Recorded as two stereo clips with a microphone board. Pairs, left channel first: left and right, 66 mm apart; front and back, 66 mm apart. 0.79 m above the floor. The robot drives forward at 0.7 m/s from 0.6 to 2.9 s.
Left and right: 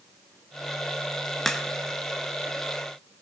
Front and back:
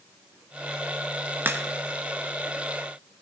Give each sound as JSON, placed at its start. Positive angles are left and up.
{"t": 1.4, "sound": "a crack", "azimuth_deg": 165, "distance_m": 0.8}